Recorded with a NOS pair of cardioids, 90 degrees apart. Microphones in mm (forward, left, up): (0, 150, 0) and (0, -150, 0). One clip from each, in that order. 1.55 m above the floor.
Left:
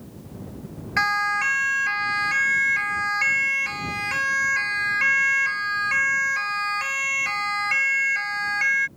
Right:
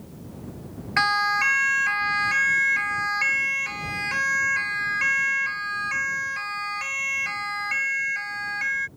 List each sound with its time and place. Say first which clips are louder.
1.0 s a siren: right 1 dB; 20° right; by 8.9 s 35° left